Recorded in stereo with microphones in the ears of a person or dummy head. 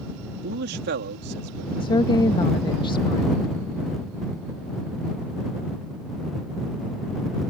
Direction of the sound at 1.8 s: 25° left (ahead or behind).